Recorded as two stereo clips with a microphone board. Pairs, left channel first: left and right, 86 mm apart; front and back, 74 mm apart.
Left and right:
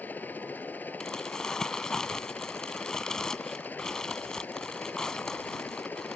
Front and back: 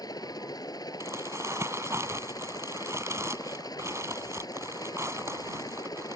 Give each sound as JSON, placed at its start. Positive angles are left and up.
{"t": 0.0, "sound": "a helicopter", "azimuth_deg": 20}
{"t": 1.0, "sound": "crumpling", "azimuth_deg": 170}